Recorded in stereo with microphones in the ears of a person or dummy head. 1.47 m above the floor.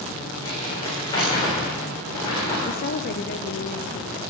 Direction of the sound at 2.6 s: 60° left (ahead or behind).